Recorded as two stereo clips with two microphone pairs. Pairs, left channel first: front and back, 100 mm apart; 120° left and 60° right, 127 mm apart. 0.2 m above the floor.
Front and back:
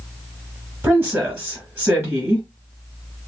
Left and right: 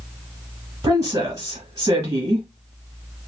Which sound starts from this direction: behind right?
A woman speaking, at 0.8 s.